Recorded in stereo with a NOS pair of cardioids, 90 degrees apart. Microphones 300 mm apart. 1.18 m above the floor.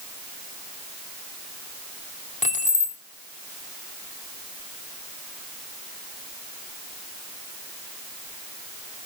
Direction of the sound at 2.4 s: 25° left.